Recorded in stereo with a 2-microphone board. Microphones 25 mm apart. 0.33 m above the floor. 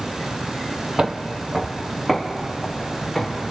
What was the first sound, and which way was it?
Footsteps, 30° right (ahead or behind).